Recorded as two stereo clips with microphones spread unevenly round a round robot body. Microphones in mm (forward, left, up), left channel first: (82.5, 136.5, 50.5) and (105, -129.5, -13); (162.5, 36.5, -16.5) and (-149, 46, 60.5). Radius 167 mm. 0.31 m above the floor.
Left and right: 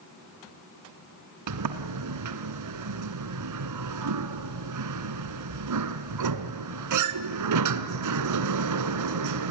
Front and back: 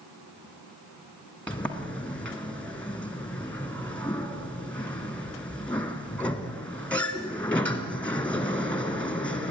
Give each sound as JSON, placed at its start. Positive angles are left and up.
{"t": 1.5, "sound": "a sliding door", "azimuth_deg": -85, "distance_m": 1.2}